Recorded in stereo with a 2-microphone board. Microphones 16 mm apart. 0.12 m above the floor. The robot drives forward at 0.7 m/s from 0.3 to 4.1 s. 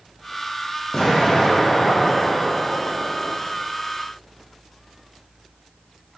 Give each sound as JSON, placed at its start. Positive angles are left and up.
{"t": 0.9, "sound": "an explosion", "side_deg": 35, "distance_m": 1.9}